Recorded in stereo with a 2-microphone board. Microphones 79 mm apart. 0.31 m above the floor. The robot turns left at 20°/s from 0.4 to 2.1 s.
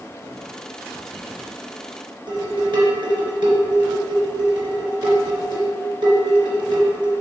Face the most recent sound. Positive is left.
turn(degrees=-65)  # may be behind; listen again after turning